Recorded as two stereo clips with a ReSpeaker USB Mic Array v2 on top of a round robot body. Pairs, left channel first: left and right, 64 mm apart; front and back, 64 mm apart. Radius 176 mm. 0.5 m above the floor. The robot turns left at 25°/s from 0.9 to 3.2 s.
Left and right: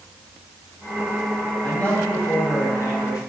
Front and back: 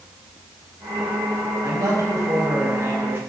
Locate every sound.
1.6 s a man speaking: 160° left, 5 m; by 3.2 s 120° left, 5 m